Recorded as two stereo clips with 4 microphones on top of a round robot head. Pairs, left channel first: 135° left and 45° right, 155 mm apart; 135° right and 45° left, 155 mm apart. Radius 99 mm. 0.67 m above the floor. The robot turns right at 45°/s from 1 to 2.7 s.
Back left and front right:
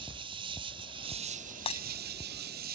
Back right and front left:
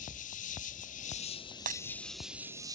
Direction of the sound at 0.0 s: 100° right.